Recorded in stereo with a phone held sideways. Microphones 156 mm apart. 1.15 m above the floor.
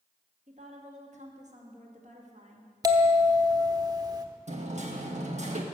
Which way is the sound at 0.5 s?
50° right (ahead or behind).